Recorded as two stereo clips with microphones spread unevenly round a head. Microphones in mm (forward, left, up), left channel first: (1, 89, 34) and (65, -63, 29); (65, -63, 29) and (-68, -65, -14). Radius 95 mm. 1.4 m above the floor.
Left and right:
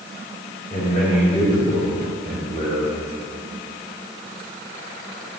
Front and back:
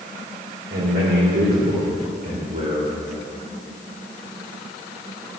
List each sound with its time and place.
0.7 s a man speaking: 165° left, 4.5 m; by 2.9 s 160° right, 3.5 m